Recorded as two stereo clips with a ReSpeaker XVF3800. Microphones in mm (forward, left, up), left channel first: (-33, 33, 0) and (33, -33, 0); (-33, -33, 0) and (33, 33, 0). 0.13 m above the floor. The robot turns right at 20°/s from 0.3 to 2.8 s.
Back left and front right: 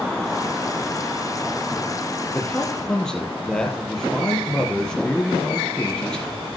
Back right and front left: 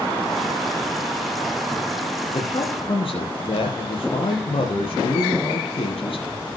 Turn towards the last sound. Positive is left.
turn(degrees=-140)